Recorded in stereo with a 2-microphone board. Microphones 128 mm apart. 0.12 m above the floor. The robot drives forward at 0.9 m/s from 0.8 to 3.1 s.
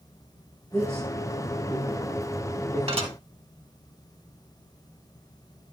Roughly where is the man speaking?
Centre.